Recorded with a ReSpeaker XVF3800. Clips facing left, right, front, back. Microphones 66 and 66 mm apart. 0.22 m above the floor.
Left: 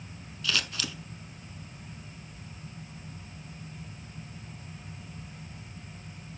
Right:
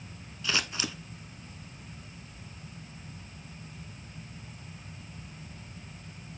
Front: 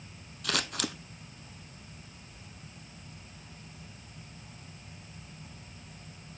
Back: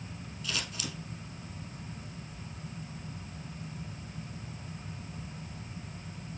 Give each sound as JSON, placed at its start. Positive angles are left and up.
{"t": 0.4, "sound": "scissors", "azimuth_deg": -25, "distance_m": 0.7}